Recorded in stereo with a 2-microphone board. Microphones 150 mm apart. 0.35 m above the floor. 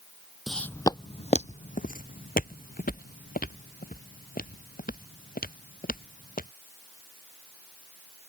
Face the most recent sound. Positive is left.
turn(degrees=80)